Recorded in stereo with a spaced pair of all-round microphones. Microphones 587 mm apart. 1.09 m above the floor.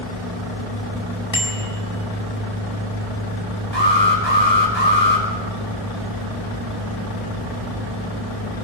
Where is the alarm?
45° right (ahead or behind), 6.5 m.